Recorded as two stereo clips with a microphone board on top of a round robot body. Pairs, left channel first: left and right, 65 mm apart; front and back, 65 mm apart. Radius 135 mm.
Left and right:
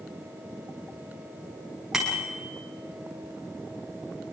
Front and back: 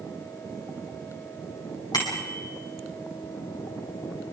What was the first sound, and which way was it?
A bicycle bell, 10° right.